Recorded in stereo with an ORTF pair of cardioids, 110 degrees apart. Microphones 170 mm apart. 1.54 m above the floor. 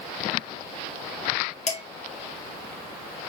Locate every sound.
1.7 s dishes clattering: 40° left, 2.5 m